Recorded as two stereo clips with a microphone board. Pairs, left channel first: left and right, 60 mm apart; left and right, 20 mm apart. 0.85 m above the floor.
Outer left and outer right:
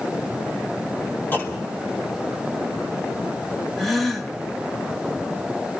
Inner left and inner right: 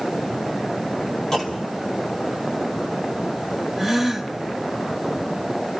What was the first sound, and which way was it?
A clunk, 35° left (ahead or behind).